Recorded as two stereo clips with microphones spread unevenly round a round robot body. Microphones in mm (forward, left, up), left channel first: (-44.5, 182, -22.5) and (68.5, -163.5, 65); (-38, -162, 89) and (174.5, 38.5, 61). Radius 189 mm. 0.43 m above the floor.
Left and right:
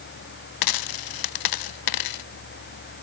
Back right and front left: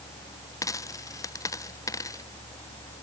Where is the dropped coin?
140° left.